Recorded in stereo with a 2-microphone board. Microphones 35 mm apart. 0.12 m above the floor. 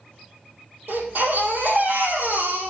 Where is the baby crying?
65° right (ahead or behind), 3.5 m.